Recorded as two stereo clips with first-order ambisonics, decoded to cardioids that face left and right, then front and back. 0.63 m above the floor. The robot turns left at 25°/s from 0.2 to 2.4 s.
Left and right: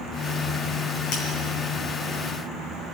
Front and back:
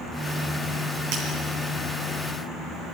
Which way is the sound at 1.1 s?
140° left.